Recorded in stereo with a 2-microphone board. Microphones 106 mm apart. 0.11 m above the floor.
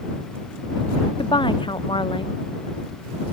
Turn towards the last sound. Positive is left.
turn(degrees=50)  # may be behind; listen again after turning